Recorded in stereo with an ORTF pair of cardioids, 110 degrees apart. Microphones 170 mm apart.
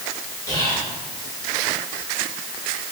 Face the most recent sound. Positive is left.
turn(degrees=20)